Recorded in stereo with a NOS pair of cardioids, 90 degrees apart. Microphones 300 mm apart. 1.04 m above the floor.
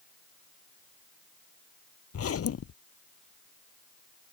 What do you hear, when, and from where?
2.1 s a zipper: 50° left